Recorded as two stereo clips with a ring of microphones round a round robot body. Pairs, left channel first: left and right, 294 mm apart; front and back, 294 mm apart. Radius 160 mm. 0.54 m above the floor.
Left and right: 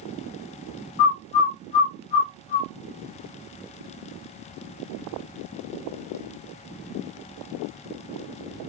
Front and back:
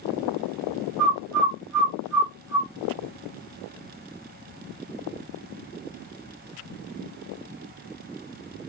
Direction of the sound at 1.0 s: 90° left.